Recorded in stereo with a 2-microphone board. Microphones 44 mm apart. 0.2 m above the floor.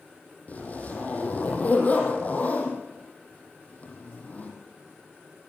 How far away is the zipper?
About 5 m.